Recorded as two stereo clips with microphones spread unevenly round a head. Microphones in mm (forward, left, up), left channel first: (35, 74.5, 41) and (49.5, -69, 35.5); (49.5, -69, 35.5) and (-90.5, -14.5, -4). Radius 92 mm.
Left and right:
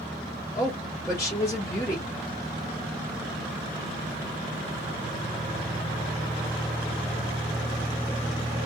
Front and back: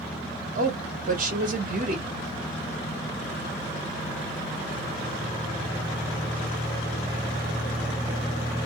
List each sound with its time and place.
0.6 s a woman speaking: 165° left, 1.4 m